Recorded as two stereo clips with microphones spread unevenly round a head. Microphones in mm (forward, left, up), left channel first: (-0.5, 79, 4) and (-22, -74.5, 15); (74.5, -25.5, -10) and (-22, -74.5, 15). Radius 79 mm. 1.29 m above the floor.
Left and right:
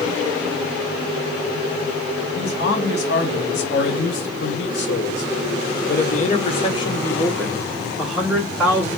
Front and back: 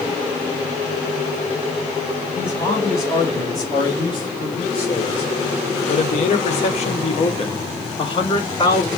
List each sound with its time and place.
2.4 s a man speaking: 100° left, 2 m; by 8.9 s 20° right, 1.7 m